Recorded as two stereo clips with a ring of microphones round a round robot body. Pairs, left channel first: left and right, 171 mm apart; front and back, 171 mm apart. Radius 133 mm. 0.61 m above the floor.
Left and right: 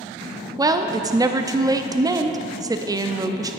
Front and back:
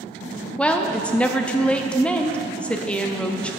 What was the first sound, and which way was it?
A woman speaking, 70° right.